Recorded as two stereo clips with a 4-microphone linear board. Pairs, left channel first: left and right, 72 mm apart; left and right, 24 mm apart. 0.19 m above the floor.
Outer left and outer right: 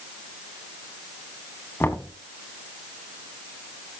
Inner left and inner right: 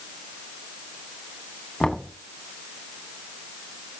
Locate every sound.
1.8 s knocking: 30° left (ahead or behind), 1.1 m